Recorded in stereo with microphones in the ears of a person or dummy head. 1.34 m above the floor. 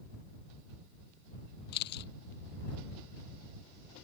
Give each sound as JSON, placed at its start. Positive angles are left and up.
{"t": 1.7, "sound": "a camera shutter", "side_deg": 65}